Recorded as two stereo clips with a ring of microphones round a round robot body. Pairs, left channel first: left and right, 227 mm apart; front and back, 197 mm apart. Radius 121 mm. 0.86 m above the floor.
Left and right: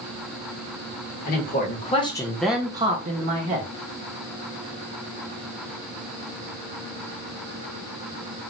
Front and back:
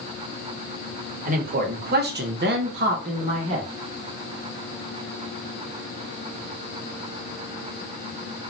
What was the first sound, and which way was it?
A man speaking, 135° left.